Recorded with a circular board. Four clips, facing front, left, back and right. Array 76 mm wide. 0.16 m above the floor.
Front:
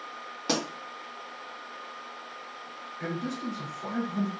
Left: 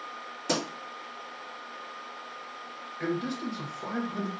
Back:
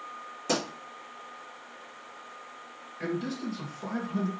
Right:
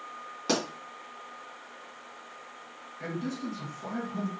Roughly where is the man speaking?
Behind left.